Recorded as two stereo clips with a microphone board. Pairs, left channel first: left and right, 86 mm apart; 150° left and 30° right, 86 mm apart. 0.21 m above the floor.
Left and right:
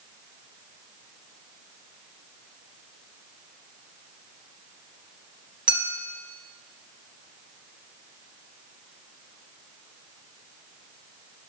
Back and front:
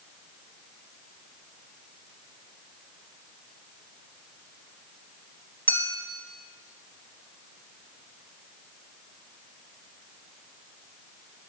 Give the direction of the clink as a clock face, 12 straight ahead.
5 o'clock.